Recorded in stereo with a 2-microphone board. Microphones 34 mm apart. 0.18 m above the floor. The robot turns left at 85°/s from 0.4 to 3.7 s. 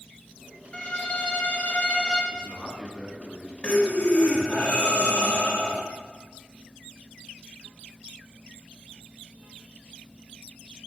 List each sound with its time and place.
0.7 s a violin: 140° left, 0.6 m; by 2.2 s 15° left, 0.6 m
2.3 s a man speaking: 35° left, 1.9 m; by 3.5 s 65° right, 1.9 m
3.6 s breathing: 40° left (ahead or behind), 0.9 m